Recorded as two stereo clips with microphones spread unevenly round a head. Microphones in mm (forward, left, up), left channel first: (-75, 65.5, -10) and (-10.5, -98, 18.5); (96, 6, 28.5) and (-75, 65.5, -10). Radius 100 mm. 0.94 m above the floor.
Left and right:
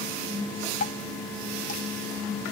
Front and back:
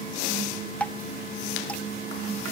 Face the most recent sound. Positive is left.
turn(degrees=70)